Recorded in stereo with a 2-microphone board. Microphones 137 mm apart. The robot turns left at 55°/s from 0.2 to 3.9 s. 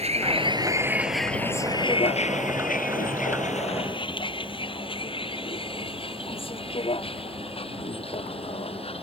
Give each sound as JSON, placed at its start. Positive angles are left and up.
{"t": 0.0, "sound": "a vehicle", "side_deg": -50}